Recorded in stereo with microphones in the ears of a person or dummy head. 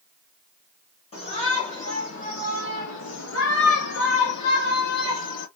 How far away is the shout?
About 1.9 m.